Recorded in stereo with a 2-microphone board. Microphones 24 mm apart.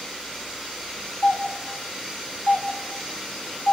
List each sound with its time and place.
1.2 s a doorbell: 60° left (ahead or behind), 4.5 m